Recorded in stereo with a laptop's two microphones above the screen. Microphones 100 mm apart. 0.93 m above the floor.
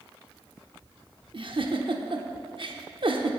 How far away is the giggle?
About 0.8 m.